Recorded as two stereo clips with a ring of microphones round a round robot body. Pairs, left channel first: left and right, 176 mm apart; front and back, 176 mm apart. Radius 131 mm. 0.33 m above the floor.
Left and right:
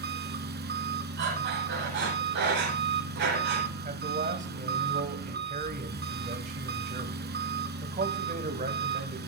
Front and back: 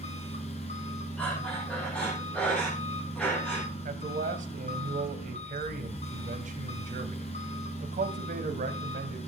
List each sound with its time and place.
0.0 s an engine running: 65° right, 1.8 m
1.2 s breathing: 85° right, 7.5 m
3.9 s a man speaking: 135° right, 1.9 m